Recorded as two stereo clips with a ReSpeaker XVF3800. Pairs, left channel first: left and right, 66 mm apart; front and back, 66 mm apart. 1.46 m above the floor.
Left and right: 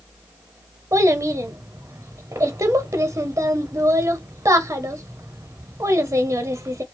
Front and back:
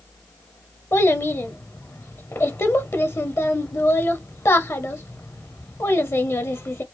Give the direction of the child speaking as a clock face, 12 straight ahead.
2 o'clock.